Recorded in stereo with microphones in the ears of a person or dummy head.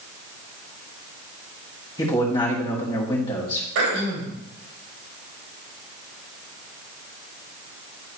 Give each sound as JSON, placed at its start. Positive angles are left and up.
{"t": 2.0, "sound": "a man speaking", "side_deg": 25, "distance_m": 1.9}
{"t": 3.8, "sound": "throat clearing", "side_deg": -70, "distance_m": 2.5}